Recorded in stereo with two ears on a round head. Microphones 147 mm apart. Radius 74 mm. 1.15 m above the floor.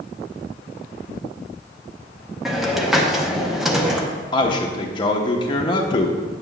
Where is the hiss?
Centre (ahead or behind), 0.8 m.